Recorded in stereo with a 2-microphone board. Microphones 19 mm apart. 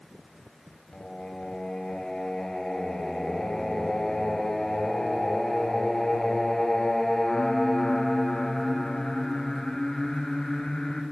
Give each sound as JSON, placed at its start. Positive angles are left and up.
{"t": 0.9, "sound": "singing", "side_deg": 35, "distance_m": 1.6}